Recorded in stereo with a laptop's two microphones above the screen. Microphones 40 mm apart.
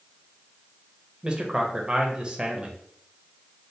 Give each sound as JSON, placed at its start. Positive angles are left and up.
{"t": 1.2, "sound": "a man speaking", "side_deg": -25, "distance_m": 0.9}